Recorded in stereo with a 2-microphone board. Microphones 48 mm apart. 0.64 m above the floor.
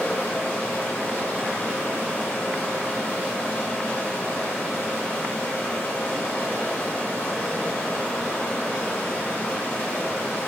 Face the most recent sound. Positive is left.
turn(degrees=35)  # may be behind; listen again after turning